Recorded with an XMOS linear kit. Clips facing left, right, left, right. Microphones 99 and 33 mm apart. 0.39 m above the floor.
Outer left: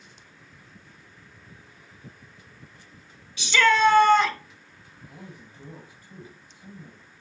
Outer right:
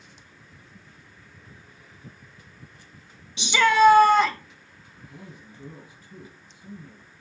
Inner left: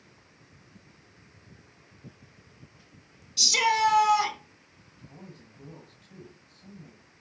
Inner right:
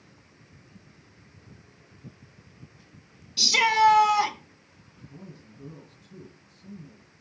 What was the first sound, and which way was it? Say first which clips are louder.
A shout: outer right 2 dB, inner right 3 dB; 20° right (ahead or behind).